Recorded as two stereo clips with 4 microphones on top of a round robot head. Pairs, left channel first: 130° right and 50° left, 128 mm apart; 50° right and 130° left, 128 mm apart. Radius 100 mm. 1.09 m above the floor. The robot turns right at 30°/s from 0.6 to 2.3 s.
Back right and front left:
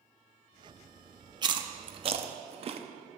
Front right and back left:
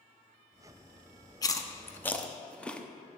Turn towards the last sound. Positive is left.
turn(degrees=30)